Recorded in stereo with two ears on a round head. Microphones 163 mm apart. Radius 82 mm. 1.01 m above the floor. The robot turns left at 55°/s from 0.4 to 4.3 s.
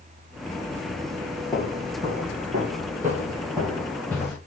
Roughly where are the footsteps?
Centre.